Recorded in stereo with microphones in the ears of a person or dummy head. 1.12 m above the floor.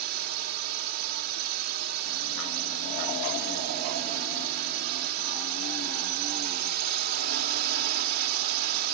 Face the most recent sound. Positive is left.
turn(degrees=-55)  # may be behind; listen again after turning